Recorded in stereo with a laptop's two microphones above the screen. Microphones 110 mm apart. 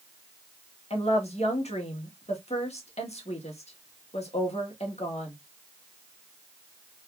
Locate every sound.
0.9 s a woman speaking: 75° left (ahead or behind), 1.4 m